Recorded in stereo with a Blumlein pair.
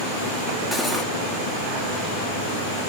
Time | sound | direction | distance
0.7 | cutlery clinking | 5° left | 1.9 m